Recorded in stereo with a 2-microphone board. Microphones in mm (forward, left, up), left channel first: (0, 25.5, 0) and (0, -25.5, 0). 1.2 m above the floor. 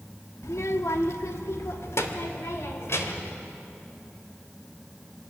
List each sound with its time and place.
0.4 s a child speaking: 70° left (ahead or behind), 1.2 m; by 3.3 s 60° left (ahead or behind), 3 m